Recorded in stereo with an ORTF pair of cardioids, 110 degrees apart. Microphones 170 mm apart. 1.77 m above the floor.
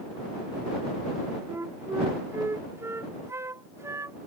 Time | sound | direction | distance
1.5 | a flute | 15° right | ?